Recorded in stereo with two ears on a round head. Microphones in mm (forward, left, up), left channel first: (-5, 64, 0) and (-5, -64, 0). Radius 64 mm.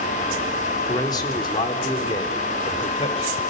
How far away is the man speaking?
About 3.5 m.